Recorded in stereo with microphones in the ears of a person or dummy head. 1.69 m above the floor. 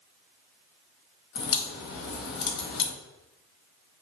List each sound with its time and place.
1.4 s a crack: 50° left (ahead or behind), 1.0 m